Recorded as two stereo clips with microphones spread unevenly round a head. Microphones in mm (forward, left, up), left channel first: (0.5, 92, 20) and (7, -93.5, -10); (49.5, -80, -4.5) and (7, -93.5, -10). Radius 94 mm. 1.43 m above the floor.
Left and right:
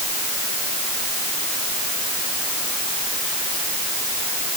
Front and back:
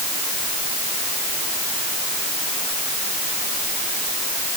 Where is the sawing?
No sawing in this recording.